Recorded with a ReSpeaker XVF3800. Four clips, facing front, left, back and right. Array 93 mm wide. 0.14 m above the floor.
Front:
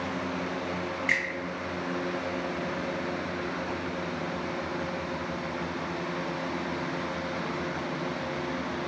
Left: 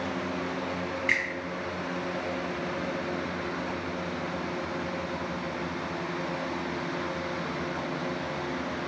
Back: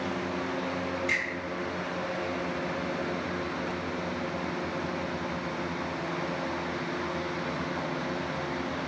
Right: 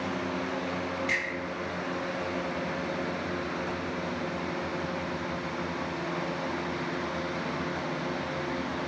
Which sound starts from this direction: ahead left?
A finger snap, at 1.1 s.